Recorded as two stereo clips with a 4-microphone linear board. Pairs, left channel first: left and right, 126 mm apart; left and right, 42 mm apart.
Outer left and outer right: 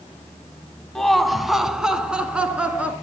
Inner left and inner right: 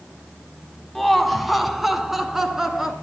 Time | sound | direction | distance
0.9 | laughter | 5° left (ahead or behind) | 1.5 m